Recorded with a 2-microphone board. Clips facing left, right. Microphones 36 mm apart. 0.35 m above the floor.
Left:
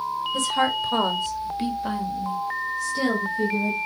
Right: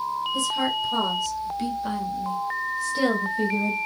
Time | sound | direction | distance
0.3 | a woman speaking | 55° left (ahead or behind) | 1.7 m